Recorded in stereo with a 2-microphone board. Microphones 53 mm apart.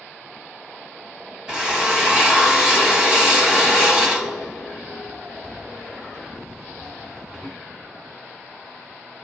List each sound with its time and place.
1.5 s a drill: 10° right (ahead or behind), 1.4 m